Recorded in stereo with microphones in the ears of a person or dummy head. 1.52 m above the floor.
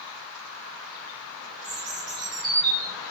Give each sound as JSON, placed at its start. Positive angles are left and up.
{"t": 1.6, "sound": "a bird", "side_deg": -50, "distance_m": 1.3}